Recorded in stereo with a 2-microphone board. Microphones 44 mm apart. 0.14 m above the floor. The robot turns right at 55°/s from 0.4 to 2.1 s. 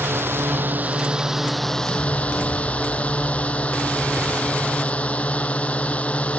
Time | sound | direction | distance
0.0 | a drone | 60° right | ?